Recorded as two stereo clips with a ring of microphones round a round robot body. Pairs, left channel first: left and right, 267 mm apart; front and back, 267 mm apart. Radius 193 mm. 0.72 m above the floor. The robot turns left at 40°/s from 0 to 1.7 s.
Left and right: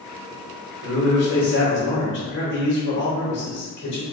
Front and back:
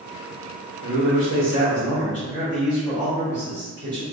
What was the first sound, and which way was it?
A man speaking, 150° left.